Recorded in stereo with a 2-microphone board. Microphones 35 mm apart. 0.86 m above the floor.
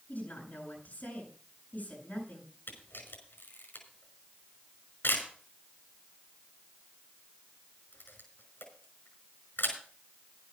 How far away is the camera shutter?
About 5.5 m.